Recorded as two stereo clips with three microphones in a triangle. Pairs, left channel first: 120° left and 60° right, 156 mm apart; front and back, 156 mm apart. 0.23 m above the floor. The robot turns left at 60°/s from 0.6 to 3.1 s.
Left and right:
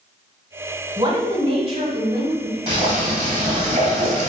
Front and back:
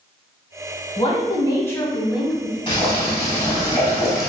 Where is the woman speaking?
20° right, 1.1 m; by 2.6 s 115° right, 1.1 m.